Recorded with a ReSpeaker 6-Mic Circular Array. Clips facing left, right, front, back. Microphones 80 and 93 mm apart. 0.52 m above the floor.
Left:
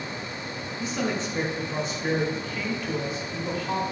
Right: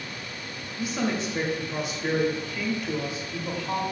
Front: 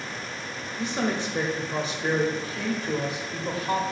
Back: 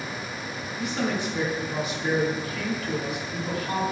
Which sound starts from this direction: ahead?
A woman speaking, at 0.8 s.